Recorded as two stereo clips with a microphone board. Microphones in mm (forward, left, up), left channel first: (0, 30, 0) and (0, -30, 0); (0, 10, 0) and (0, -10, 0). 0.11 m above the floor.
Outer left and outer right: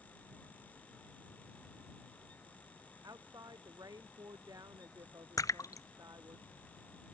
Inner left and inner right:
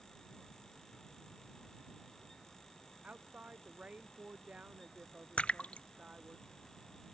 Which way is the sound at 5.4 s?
70° left (ahead or behind).